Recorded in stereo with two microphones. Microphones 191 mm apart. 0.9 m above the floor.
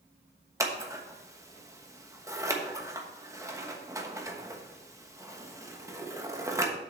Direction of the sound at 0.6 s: 15° right (ahead or behind).